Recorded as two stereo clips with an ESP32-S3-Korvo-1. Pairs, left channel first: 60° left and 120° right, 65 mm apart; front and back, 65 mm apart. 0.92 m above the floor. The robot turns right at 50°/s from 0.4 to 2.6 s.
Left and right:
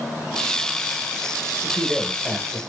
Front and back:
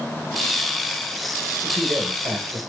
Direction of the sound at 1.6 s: 125° left.